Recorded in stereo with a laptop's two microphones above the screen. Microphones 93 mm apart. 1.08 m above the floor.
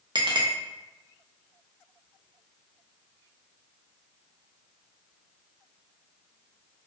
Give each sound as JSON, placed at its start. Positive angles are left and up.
{"t": 0.1, "sound": "a clink", "side_deg": -55, "distance_m": 0.6}